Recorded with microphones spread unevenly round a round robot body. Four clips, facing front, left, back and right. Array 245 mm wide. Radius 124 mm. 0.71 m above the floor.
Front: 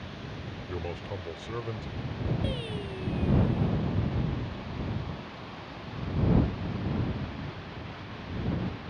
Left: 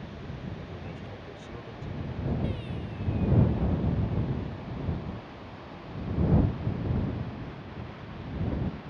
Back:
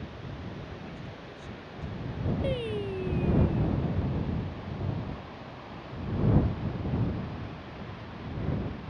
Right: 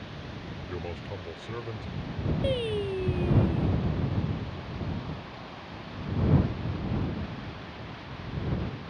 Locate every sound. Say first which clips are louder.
0.7 s a man speaking: right 4 dB, front 6 dB; 40° right; by 1.9 s 30° right
2.4 s singing: right 8 dB, back 4 dB; 110° right